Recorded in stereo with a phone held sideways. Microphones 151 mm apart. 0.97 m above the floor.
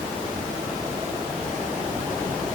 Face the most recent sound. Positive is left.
No sound to turn to.